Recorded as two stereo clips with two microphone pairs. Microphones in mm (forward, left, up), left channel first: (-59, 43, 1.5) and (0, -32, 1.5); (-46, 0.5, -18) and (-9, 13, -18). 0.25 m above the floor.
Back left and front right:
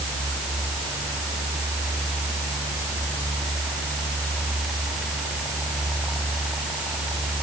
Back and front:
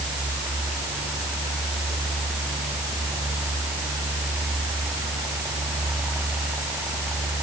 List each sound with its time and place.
Only background noise.